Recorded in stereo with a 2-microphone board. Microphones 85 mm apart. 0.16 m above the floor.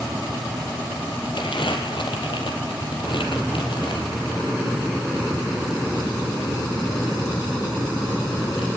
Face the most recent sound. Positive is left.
turn(degrees=70)  # may be behind; listen again after turning